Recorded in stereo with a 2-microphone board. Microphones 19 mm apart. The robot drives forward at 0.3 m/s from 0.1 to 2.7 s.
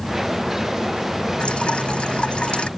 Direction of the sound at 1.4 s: 85° left.